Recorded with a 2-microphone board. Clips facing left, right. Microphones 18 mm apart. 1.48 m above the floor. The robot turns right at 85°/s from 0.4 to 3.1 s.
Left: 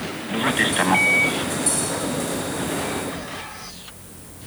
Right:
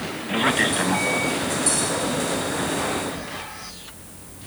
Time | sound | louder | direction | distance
0.3 | a man speaking | even | 10° right | 1.1 m